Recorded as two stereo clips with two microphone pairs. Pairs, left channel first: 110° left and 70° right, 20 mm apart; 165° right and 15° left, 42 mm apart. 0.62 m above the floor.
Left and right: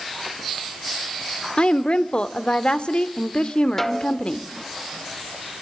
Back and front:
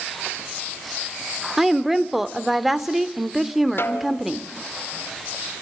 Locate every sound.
1.6 s a woman speaking: 100° left, 1.6 m
3.8 s a snare drum: straight behind, 2.5 m